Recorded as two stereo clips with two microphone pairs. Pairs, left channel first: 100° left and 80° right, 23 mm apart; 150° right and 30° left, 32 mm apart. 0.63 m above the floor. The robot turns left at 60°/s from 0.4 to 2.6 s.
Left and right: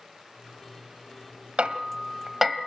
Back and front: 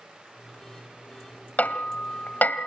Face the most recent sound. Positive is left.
turn(degrees=-175)